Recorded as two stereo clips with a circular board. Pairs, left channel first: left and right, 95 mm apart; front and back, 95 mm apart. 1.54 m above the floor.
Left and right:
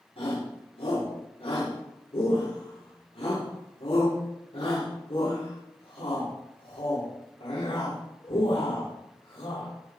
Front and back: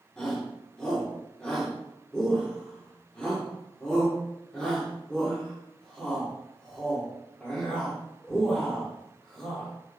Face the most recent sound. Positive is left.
turn(degrees=80)